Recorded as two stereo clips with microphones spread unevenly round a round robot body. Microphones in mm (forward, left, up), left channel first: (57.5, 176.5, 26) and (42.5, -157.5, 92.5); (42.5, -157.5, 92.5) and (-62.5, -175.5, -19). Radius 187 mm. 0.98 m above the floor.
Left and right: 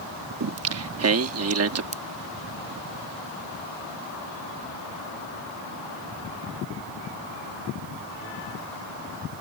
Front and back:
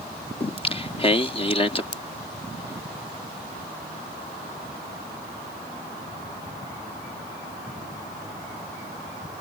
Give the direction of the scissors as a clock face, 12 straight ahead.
1 o'clock.